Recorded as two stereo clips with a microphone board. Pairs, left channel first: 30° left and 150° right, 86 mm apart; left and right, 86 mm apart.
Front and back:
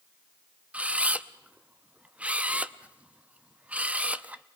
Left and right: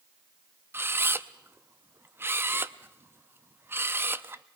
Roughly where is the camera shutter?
Right.